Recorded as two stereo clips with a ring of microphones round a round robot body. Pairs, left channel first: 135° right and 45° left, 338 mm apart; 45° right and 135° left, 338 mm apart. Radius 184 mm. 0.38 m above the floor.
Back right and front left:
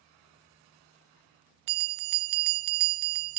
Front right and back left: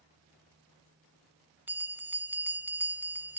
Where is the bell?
50° left, 0.7 m.